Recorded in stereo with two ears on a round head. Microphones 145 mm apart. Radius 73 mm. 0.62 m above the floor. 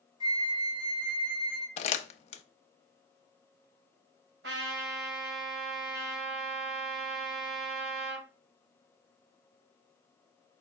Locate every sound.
0.2 s a flute: 25° right (ahead or behind), 2 m
1.8 s crumpling: 40° left (ahead or behind), 0.6 m
4.4 s a trumpet: 80° right, 2 m